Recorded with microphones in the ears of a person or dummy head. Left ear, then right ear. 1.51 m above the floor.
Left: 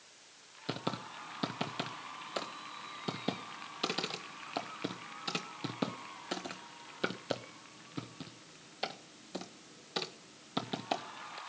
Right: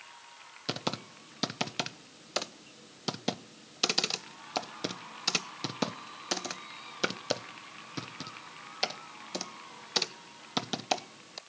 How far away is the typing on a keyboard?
About 0.8 m.